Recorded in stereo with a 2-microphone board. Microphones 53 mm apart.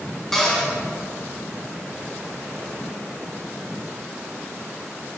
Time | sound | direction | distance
0.3 | a cupboard door | 10° left (ahead or behind) | 1.1 m